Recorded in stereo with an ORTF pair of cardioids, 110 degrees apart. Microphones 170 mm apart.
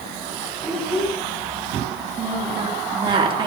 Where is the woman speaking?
30° right, 3 m.